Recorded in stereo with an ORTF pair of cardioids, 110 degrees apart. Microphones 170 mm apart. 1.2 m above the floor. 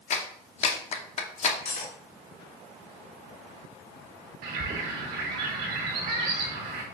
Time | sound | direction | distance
0.1 | a clap | 40° left | 0.8 m
1.6 | cutlery clinking | 55° left | 1.3 m
4.4 | a bird | 65° right | 1.5 m